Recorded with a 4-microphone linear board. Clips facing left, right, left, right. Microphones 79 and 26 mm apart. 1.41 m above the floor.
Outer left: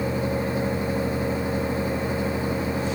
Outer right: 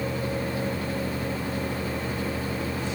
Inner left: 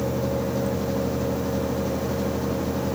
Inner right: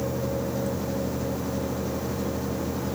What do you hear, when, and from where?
Only background noise.